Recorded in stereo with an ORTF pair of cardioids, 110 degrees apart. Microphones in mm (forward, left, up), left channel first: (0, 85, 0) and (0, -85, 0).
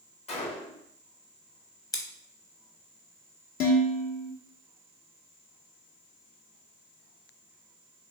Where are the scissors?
20° left, 0.9 m.